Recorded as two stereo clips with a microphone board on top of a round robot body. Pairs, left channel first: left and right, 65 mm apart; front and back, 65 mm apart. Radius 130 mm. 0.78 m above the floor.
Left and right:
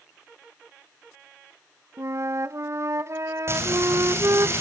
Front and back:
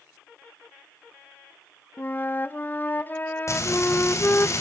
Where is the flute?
55° right, 0.7 m.